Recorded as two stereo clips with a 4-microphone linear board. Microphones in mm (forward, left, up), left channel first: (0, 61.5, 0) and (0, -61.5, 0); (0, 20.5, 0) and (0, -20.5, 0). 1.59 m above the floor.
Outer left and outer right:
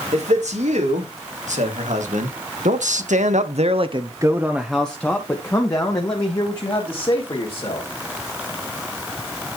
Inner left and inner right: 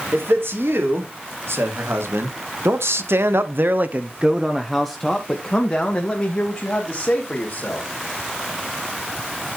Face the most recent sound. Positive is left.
turn(degrees=40)  # may be behind; listen again after turning